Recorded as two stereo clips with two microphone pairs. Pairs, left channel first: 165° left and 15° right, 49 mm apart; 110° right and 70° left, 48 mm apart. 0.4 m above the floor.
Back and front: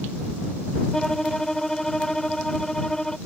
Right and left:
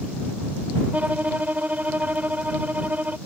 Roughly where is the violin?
Left.